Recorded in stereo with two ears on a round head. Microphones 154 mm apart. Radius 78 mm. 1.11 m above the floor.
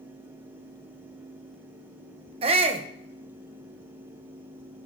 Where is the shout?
35° right (ahead or behind), 1.0 m.